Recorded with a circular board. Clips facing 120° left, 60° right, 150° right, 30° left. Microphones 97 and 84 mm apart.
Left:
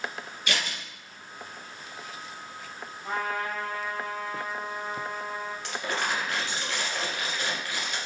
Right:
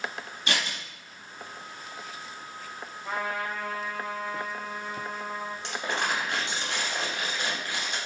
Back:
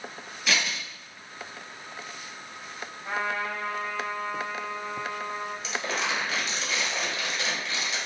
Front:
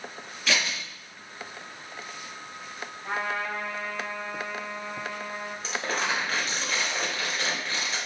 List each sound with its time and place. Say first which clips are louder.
0.5 s scissors: right 1 dB, even; 65° right, 1.3 m
3.0 s a trumpet: left 1 dB, even; 70° left, 1.5 m
5.6 s crumpling: right 1 dB, front 2 dB; straight ahead, 1.2 m